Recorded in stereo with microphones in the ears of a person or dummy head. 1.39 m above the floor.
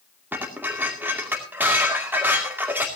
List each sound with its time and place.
0.3 s dishes clattering: 5° right (ahead or behind), 2.5 m